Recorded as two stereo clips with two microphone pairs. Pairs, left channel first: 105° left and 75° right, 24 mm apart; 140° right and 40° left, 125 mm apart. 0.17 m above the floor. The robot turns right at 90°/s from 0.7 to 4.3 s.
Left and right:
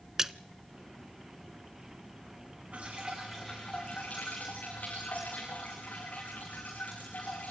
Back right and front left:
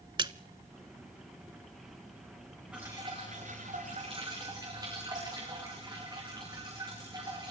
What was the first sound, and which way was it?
A splash, 5° right.